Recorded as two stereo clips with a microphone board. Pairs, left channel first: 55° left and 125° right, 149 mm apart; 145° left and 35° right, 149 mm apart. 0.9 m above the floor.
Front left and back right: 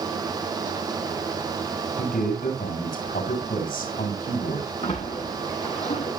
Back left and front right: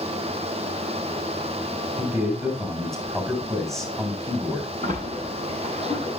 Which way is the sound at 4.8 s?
5° left.